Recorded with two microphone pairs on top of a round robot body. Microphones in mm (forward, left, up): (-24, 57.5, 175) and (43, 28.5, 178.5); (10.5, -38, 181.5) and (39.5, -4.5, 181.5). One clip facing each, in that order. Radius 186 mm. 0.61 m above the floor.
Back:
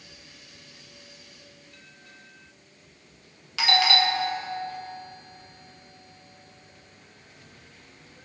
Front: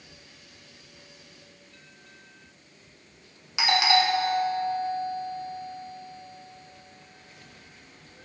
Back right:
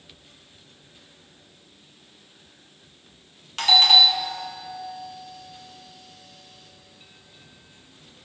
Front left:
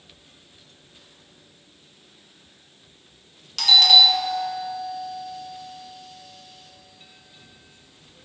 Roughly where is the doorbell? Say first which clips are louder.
Front 1 dB, front left 1 dB; right.